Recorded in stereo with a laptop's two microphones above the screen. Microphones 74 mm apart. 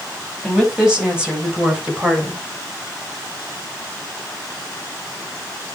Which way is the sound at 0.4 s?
5° right (ahead or behind).